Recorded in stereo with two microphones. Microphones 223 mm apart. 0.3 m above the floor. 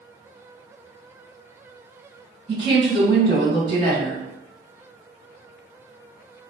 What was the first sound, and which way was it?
A woman speaking, 25° right (ahead or behind).